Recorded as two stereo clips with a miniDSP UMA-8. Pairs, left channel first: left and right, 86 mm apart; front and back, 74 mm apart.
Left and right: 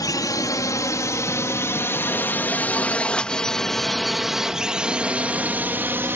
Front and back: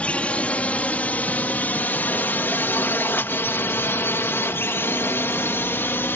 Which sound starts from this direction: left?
A drone, at 0.0 s.